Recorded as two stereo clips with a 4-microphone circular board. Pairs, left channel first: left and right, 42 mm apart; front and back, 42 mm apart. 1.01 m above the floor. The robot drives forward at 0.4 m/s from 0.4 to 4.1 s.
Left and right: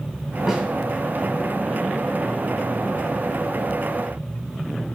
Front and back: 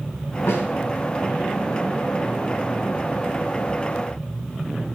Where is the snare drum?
15° right, 2.5 m.